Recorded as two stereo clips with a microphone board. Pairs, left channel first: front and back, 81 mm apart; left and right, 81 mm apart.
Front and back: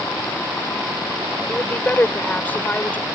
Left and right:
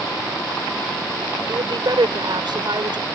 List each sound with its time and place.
1.5 s a woman speaking: 65° right; by 3.1 s 70° right